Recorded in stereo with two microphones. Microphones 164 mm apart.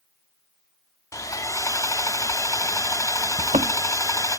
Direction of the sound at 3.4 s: 40° right (ahead or behind).